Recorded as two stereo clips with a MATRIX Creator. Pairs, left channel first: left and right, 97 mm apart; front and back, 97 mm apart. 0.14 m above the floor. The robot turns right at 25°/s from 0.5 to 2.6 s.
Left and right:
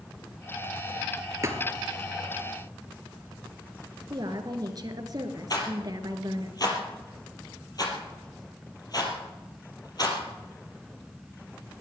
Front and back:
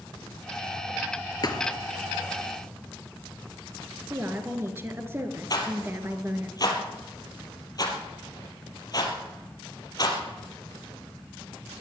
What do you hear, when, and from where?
1.4 s a thud: 35° right, 1.5 m; by 1.7 s 30° right, 1.5 m
4.1 s a woman speaking: 120° right, 1.9 m
5.5 s a rattle: 45° left, 3 m